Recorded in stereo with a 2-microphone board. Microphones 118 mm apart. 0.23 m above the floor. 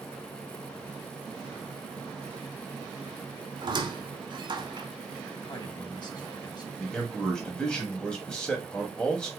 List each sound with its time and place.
3.6 s a squeak: 40° right (ahead or behind), 0.8 m
5.5 s a man speaking: 35° left (ahead or behind), 1.2 m
6.8 s a man speaking: 5° left (ahead or behind), 1.0 m